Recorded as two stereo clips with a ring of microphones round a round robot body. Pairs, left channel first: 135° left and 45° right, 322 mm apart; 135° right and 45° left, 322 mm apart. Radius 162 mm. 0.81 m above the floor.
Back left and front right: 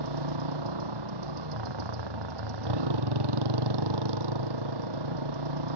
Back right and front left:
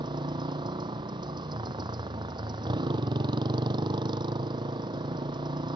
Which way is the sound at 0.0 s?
30° right.